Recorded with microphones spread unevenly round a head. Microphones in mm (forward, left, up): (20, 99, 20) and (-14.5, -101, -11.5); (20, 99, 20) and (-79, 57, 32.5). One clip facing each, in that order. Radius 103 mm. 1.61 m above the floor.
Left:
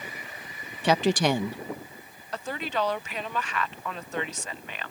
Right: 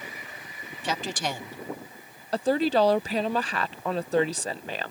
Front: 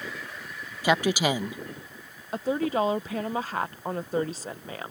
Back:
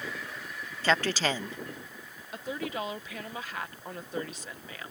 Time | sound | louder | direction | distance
0.8 | a woman speaking | left 9 dB, front 4 dB | 100° left | ?
2.3 | a woman speaking | right 9 dB, front 9 dB | 45° right | ?